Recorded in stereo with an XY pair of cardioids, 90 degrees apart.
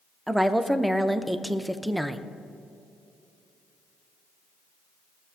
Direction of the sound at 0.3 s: 5° right.